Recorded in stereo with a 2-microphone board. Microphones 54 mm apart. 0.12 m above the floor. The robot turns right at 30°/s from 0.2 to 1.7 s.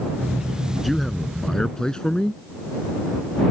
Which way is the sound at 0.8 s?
Centre (ahead or behind).